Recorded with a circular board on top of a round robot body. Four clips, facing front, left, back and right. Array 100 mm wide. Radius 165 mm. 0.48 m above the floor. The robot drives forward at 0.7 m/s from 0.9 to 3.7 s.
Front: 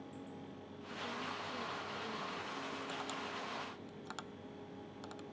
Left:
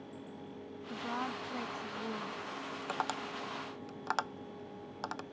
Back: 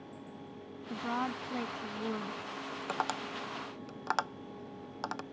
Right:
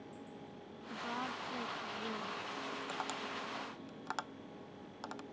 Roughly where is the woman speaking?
Behind.